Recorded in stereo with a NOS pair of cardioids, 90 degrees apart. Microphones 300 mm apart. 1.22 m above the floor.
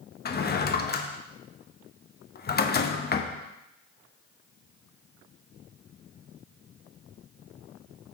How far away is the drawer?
About 0.8 m.